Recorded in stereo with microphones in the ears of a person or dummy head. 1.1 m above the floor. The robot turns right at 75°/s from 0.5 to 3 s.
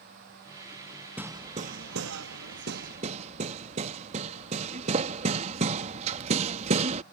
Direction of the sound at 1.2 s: 5° right (ahead or behind).